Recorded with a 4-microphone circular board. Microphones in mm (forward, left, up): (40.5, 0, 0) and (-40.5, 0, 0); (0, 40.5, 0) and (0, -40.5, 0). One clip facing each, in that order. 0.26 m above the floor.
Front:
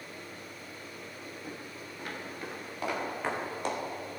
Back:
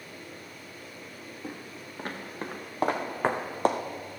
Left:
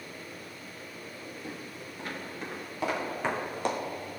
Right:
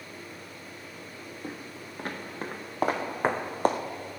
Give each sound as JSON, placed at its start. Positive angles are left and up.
{"t": 1.4, "sound": "footsteps", "azimuth_deg": -135, "distance_m": 3.0}